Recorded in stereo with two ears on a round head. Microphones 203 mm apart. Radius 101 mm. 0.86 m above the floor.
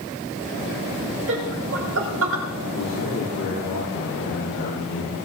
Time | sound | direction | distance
1.3 | laughter | 60° right (ahead or behind) | 5.5 m
2.7 | a man speaking | 60° left (ahead or behind) | 10 m